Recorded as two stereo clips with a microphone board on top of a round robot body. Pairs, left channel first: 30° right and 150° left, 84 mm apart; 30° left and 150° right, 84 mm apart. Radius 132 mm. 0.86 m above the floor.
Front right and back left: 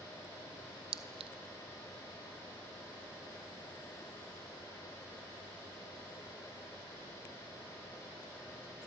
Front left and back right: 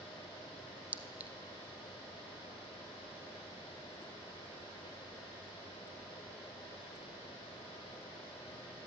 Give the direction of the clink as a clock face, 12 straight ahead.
7 o'clock.